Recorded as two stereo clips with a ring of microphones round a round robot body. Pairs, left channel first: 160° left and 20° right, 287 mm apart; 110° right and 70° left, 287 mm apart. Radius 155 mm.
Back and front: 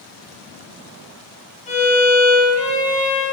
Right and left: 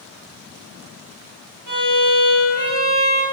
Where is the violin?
90° left, 7 m.